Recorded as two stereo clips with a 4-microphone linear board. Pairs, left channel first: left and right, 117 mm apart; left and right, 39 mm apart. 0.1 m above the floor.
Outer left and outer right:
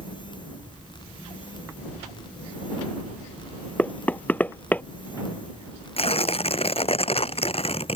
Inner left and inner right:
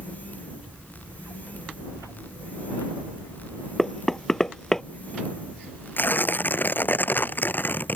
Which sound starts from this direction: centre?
Knocking, at 3.8 s.